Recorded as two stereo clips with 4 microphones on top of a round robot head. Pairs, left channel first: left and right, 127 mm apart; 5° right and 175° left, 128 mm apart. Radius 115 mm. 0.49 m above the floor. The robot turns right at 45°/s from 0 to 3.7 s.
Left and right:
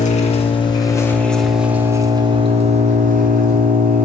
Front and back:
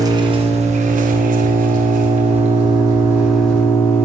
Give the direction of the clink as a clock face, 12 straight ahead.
No clink in this recording.